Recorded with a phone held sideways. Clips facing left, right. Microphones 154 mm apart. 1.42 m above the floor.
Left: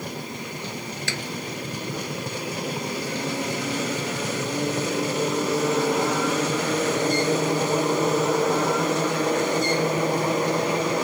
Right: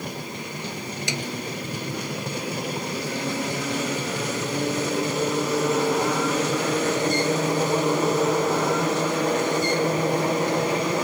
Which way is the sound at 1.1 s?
20° right (ahead or behind).